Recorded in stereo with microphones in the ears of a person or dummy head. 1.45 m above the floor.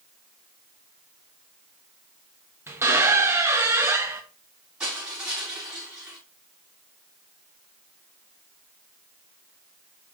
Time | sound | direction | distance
2.7 | a squeak | 15° right (ahead or behind) | 1.0 m
4.8 | crushing | centre (ahead or behind) | 3.5 m